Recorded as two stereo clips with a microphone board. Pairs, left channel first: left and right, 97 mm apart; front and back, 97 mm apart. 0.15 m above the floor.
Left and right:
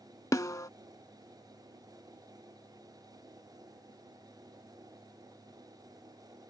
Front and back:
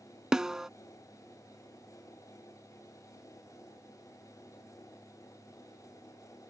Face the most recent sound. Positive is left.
turn(degrees=100)